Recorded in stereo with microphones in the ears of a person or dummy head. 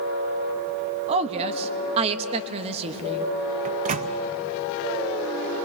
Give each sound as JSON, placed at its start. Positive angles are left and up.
{"t": 1.1, "sound": "a woman speaking", "side_deg": -35, "distance_m": 1.1}
{"t": 3.6, "sound": "a microwave", "side_deg": -45, "distance_m": 0.6}